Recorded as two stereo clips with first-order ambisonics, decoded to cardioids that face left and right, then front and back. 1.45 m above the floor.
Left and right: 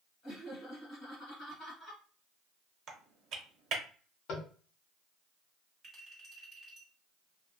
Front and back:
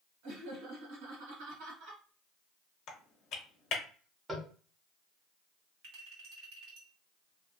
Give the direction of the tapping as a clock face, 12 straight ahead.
8 o'clock.